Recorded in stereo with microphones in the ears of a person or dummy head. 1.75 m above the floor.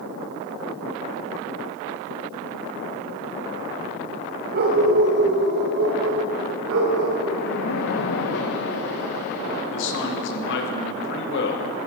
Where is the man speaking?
70° left (ahead or behind), 2 m.